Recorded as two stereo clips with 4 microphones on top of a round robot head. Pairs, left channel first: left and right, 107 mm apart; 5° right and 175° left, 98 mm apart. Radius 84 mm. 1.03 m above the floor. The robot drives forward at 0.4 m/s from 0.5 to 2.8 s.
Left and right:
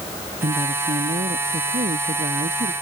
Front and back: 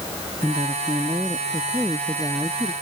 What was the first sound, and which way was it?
A woman speaking, 105° right.